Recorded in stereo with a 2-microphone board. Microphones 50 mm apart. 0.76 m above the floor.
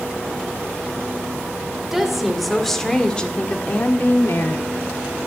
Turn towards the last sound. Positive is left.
turn(degrees=65)  # may be behind; listen again after turning